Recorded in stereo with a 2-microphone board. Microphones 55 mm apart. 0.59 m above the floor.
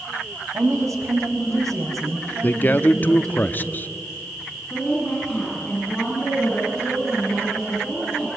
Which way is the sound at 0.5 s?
70° right (ahead or behind).